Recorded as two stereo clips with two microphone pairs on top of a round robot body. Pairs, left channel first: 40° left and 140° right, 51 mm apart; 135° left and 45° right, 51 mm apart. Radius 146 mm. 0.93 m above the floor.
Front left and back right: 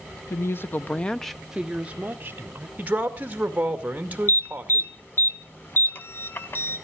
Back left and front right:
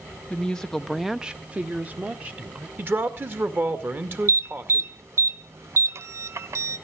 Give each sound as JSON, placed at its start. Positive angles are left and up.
{"t": 0.3, "sound": "a woman speaking", "azimuth_deg": 60, "distance_m": 1.1}
{"t": 2.8, "sound": "a man speaking", "azimuth_deg": -85, "distance_m": 2.0}
{"t": 4.3, "sound": "an alarm", "azimuth_deg": -10, "distance_m": 0.6}